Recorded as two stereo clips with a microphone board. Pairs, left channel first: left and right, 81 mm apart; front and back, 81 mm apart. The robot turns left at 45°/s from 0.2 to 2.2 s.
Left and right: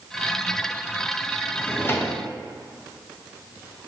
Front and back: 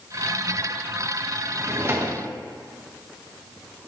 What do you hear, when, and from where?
1.5 s a drawer: 155° left, 0.8 m; by 2.2 s 125° left, 0.8 m